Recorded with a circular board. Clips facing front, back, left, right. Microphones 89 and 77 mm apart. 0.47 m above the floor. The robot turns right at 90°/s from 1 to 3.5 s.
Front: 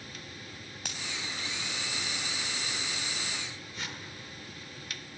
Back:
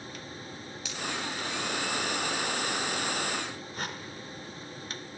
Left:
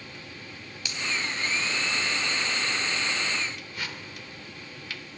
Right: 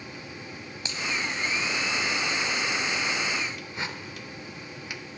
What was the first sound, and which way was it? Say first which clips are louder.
A finger snap: back 1 dB, right 1 dB; 30° right.